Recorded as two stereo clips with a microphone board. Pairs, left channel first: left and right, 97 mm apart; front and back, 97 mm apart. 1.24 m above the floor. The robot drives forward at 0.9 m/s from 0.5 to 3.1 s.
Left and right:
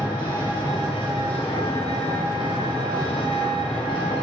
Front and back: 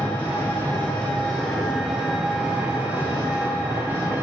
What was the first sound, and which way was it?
An engine running, 60° left.